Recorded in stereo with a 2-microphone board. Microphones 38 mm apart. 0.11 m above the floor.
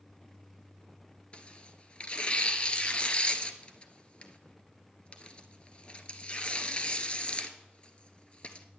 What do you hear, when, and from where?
1.3 s tearing paper: 30° left (ahead or behind), 0.9 m